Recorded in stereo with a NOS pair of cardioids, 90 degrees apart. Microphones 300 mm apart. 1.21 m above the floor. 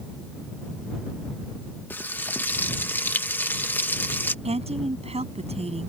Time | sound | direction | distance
1.9 | frying | 5° left | ?
4.5 | a woman speaking | 20° right | ?